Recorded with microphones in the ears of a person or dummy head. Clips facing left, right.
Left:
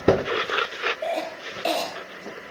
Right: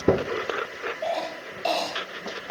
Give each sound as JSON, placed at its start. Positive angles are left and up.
{"t": 1.0, "sound": "a cough", "side_deg": 30, "distance_m": 2.5}